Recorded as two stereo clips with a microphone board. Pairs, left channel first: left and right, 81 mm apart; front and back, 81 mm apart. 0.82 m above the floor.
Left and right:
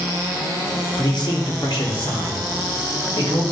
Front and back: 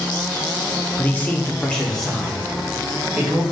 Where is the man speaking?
60° left, 1.1 m; by 3.4 s 95° left, 2.5 m.